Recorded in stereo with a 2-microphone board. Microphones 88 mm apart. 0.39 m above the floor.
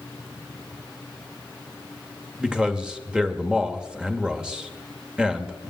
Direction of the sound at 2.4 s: 10° right (ahead or behind).